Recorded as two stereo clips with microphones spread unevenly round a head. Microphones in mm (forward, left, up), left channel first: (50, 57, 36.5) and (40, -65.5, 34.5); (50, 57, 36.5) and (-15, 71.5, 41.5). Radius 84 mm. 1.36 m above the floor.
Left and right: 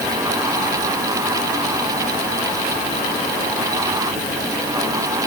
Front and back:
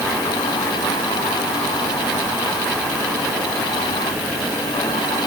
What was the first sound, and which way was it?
Only background noise.